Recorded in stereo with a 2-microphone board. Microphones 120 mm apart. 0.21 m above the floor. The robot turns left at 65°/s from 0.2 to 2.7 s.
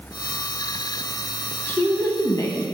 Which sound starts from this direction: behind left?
A woman speaking, at 1.7 s.